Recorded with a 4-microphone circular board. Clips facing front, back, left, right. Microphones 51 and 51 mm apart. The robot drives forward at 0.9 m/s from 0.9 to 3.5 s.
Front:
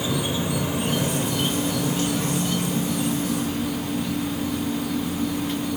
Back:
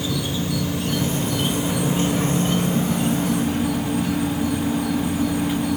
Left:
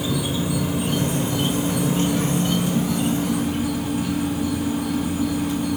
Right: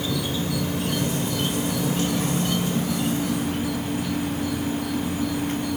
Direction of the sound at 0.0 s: 30° left.